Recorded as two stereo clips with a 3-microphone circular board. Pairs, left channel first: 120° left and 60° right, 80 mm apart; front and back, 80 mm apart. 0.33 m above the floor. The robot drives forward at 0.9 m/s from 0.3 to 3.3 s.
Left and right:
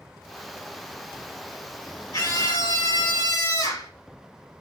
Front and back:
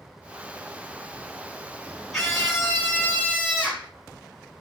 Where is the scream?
85° left, 3 m; by 3.9 s 105° left, 3 m.